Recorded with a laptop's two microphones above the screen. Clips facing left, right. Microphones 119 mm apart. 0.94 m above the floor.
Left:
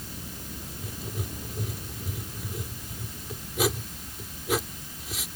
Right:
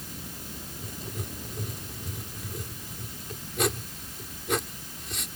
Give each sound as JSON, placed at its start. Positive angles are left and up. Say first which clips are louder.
{"t": 0.8, "sound": "writing", "louder": "left 2 dB", "side_deg": 5}